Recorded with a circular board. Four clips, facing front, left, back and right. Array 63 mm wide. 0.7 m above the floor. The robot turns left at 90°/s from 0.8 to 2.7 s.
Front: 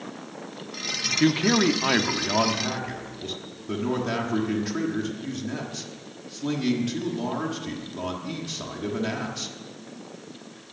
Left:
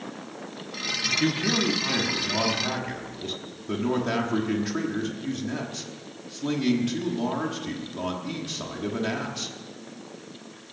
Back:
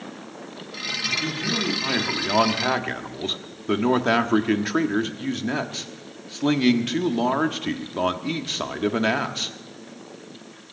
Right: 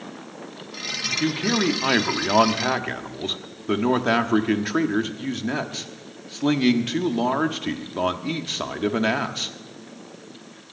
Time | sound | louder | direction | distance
1.2 | a man speaking | right 3 dB, front 10 dB | 5° right | 1.2 m